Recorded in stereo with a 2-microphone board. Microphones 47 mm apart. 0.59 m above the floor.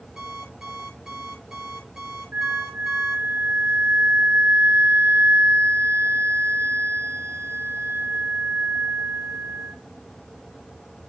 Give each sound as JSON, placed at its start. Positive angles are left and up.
{"t": 0.2, "sound": "an alarm clock", "side_deg": -10, "distance_m": 7.0}
{"t": 2.3, "sound": "a flute", "side_deg": -55, "distance_m": 0.8}